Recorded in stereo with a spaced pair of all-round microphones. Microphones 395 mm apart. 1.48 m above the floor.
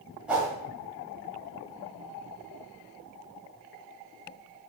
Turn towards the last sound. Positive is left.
turn(degrees=-5)  # may be behind; listen again after turning